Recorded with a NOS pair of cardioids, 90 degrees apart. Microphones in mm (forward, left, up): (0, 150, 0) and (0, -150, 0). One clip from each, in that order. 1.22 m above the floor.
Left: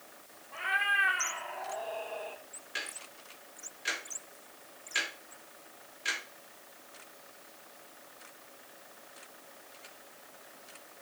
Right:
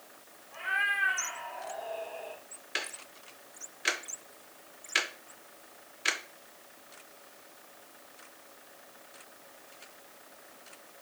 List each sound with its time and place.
0.5 s a cat meowing: 35° left, 1.7 m
2.8 s ticking: 40° right, 1.0 m